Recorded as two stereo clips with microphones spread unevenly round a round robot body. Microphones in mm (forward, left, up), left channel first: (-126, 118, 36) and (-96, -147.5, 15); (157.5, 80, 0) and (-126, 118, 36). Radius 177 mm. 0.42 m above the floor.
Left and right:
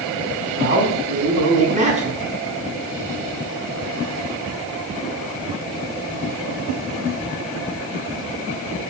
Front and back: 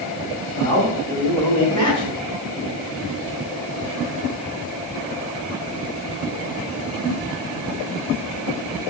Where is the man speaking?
135° right, 4.5 m; by 2.2 s 150° right, 5.5 m.